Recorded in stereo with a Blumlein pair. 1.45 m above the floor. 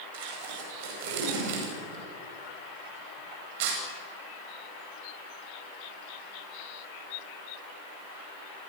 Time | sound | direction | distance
0.1 | tape being pulled | 50° right | 9.5 m